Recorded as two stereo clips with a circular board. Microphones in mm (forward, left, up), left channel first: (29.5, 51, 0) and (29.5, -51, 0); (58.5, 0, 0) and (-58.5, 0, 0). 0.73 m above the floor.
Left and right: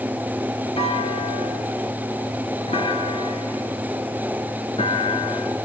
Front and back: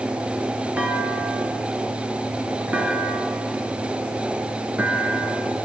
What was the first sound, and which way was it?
A clunk, 105° left.